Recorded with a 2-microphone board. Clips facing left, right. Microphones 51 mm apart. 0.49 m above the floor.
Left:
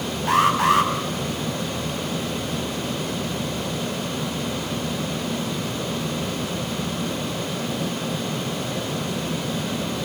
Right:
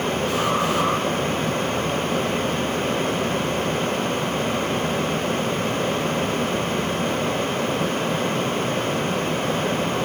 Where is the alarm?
75° left (ahead or behind), 5 m.